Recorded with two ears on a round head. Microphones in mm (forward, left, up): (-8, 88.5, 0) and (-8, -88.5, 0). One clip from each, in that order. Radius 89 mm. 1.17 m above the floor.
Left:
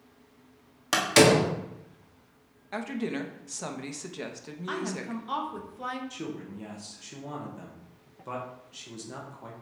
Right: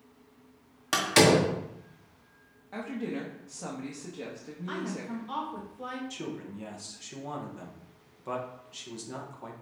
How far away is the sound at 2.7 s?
About 0.9 m.